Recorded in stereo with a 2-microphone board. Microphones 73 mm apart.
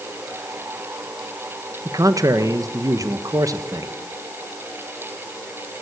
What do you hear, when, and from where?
1.9 s a man speaking: 55° right (ahead or behind), 1.5 m